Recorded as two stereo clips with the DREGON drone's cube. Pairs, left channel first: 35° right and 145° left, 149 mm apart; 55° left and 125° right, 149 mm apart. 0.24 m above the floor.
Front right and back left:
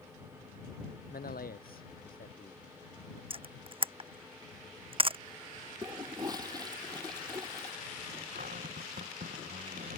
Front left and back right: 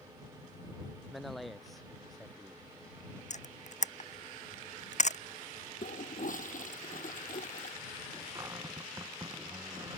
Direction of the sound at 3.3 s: 95° left.